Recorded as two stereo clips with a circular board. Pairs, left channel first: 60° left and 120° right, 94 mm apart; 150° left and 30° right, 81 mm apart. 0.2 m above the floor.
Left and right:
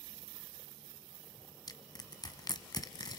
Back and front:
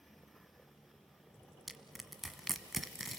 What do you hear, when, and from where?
1.7 s crushing: 60° left, 1.3 m